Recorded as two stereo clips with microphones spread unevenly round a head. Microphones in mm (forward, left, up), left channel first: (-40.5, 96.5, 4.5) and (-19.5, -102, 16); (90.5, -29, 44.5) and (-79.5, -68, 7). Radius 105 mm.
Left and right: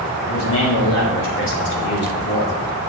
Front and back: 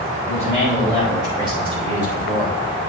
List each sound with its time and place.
0.3 s a man speaking: 110° left, 4 m; by 2.6 s 150° left, 1.8 m